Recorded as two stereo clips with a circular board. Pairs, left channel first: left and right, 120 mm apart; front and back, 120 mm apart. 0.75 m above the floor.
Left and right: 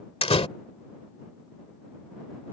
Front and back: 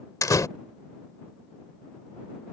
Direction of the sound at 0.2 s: 60° left.